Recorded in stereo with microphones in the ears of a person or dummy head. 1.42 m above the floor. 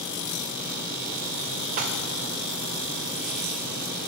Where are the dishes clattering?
50° right (ahead or behind), 1.0 m.